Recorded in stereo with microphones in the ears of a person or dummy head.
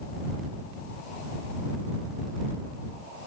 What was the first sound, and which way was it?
Only background noise.